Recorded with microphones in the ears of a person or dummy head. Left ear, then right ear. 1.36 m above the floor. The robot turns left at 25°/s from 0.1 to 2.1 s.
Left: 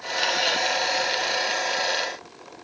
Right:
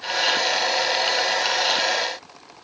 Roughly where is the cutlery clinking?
I don't hear cutlery clinking.